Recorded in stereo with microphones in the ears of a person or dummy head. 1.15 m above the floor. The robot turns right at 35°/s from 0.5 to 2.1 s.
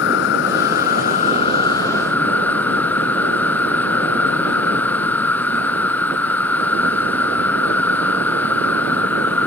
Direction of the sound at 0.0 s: 115° left.